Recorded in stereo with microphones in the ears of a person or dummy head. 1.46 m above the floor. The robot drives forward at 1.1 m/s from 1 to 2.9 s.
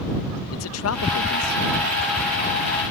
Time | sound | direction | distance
0.5 | a man speaking | 80° left | ?